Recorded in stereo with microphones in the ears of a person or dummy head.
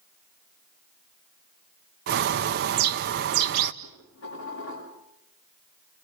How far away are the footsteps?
I don't hear footsteps.